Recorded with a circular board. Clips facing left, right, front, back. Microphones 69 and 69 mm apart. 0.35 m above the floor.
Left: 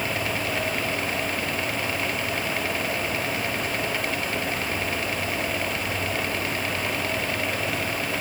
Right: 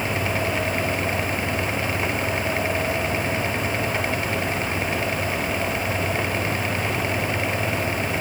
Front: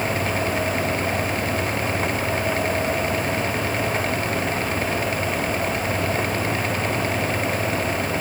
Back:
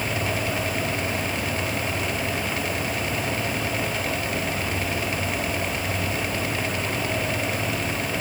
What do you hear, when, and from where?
Only background noise.